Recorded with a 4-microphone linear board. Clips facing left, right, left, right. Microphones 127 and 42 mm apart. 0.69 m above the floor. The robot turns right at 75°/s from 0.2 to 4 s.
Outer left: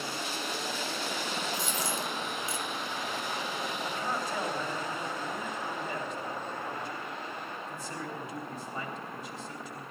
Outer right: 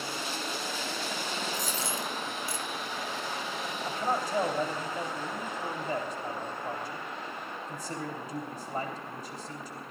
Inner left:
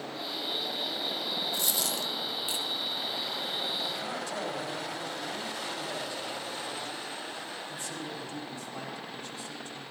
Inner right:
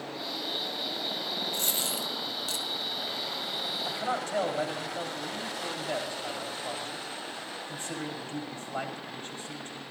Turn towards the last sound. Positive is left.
turn(degrees=-40)  # may be behind; listen again after turning